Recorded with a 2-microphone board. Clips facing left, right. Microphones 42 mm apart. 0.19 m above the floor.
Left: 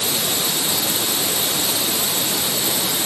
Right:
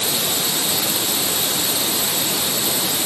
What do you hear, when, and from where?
Only background noise.